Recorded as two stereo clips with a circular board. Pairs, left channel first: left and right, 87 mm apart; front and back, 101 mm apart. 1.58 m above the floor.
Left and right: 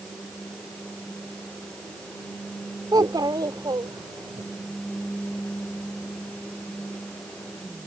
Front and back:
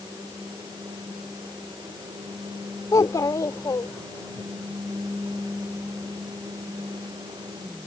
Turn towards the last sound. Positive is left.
turn(degrees=-55)